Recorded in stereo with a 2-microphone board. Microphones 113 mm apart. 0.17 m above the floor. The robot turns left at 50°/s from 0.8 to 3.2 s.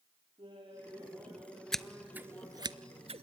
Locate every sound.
0.4 s laughter: 135° right, 6 m; by 2.7 s 130° left, 6 m
1.7 s scissors: 5° left (ahead or behind), 0.5 m; by 3.2 s 65° right (ahead or behind), 0.5 m